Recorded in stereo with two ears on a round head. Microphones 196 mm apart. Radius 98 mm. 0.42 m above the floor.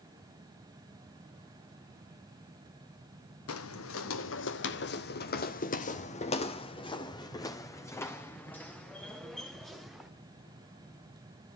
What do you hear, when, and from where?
3.5 s footsteps: 75° left (ahead or behind), 1.6 m; by 10.1 s centre (ahead or behind), 3 m